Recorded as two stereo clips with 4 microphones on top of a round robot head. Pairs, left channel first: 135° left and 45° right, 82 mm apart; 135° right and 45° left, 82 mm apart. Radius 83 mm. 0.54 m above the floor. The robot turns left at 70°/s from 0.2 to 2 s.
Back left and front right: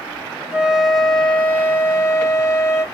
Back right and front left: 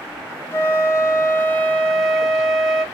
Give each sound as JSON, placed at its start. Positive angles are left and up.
{"t": 0.5, "sound": "a flute", "azimuth_deg": -110, "distance_m": 1.2}